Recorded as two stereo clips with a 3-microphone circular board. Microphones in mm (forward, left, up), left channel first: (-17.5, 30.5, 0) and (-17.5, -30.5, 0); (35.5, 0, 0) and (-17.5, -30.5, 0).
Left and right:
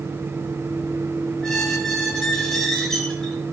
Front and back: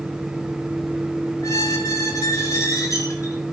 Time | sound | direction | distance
1.4 | a squeak | 10° left | 3.5 m